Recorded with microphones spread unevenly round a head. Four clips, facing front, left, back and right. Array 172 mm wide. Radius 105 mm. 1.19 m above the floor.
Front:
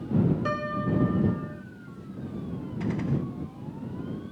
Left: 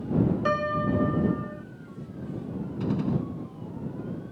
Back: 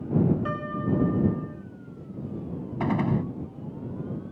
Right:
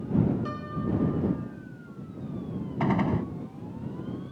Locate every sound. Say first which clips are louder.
0.5 s a piano: left 6 dB, even; 85° left
2.8 s a gunshot: right 2 dB, back 4 dB; 130° right